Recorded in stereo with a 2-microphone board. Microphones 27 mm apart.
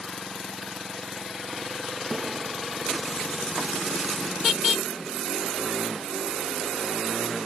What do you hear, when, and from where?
2.1 s a snare drum: 5° right (ahead or behind), 3.5 m